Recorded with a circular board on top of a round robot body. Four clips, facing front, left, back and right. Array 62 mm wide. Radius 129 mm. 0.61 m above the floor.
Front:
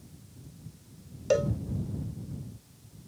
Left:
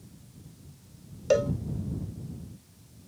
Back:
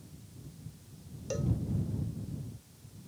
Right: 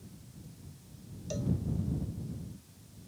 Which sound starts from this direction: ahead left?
A cowbell, at 1.3 s.